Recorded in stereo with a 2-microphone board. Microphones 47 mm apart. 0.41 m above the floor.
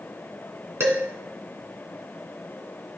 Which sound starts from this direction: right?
Dishes clattering, at 0.8 s.